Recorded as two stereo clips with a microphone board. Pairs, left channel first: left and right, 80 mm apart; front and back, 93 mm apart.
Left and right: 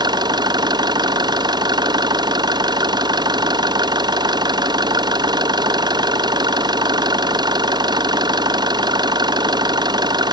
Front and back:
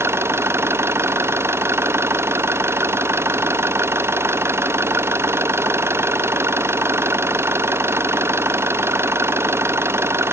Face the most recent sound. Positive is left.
turn(degrees=-115)